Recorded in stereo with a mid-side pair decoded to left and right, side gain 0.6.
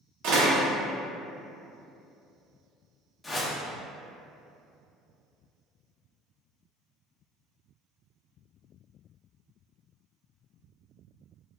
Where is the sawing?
I don't hear sawing.